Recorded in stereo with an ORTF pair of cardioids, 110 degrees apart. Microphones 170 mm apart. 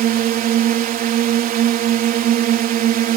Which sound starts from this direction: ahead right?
A drone, at 0.0 s.